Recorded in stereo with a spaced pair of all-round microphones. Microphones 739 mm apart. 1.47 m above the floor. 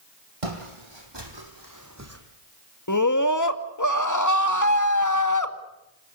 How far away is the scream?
About 2 m.